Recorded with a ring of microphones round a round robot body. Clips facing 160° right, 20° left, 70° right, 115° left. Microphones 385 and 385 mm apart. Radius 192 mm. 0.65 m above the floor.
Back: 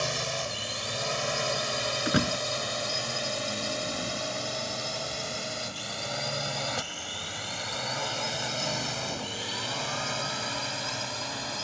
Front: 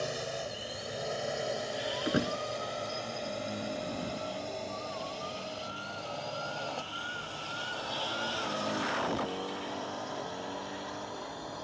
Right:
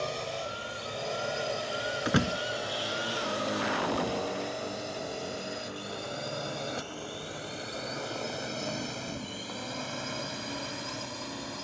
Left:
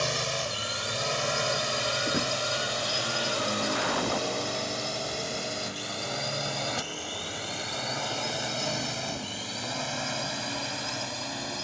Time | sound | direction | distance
0.0 | a drone | 150° left | ?
2.0 | a door slam | 100° right | ?